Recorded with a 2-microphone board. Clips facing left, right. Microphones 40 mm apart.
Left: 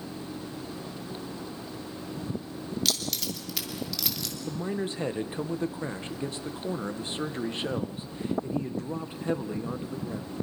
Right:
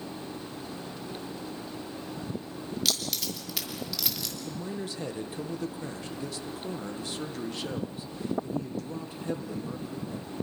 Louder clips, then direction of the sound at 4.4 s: Left 6 dB; 30° left (ahead or behind).